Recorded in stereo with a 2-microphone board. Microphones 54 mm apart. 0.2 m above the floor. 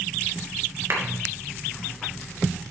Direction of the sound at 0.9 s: 55° right (ahead or behind).